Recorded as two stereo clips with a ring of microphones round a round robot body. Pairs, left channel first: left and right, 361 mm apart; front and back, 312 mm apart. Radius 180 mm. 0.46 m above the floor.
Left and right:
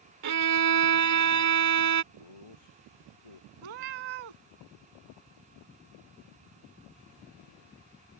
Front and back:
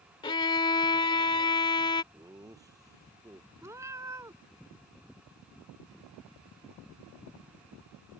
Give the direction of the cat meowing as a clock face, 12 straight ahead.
3 o'clock.